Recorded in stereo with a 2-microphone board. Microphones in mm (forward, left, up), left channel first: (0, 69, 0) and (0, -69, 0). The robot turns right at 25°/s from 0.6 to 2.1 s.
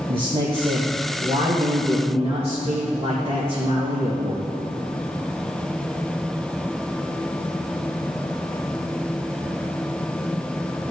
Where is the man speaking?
110° right, 2.0 m; by 4.5 s 75° right, 2.0 m.